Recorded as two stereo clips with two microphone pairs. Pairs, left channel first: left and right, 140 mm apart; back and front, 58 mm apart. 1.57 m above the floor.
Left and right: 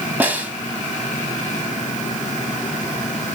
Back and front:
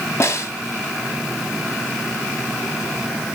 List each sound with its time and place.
0.2 s a snare drum: 165° right, 2 m